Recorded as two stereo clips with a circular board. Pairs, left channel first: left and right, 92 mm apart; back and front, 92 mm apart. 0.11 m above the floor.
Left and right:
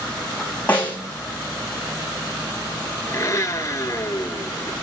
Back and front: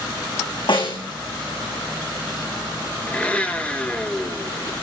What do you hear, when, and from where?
0.7 s a snare drum: 165° left, 5.5 m
3.1 s a blender: 115° left, 1.5 m